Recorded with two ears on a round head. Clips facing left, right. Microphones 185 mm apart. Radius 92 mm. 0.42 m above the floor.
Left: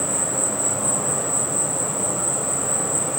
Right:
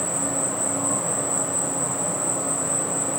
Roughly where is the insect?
Left.